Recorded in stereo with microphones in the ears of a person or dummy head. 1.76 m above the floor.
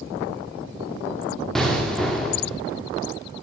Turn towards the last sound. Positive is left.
turn(degrees=0)  # may be behind; listen again after turning